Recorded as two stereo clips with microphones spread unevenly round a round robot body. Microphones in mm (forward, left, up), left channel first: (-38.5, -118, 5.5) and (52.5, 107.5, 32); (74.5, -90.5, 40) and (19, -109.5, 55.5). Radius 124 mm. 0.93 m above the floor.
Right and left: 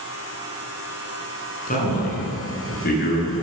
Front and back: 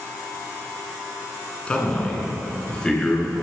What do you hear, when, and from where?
1.7 s a man speaking: 55° right, 9 m; by 3.4 s 60° right, 11.5 m